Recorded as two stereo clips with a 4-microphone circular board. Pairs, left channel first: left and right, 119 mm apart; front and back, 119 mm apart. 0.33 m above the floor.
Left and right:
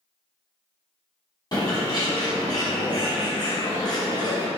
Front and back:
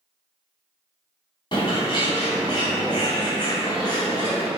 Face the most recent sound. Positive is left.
turn(degrees=45)